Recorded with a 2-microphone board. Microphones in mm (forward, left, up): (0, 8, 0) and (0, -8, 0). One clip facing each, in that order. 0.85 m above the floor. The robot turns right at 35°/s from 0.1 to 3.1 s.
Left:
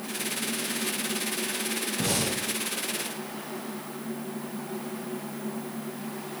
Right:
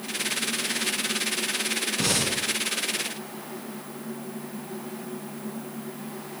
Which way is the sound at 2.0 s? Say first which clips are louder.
Right 2 dB; 70° right (ahead or behind).